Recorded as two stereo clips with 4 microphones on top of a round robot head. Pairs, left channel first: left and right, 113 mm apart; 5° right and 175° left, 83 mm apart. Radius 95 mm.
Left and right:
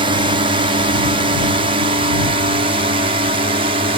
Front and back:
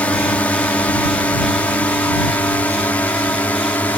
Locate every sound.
0.0 s a drone: 75° right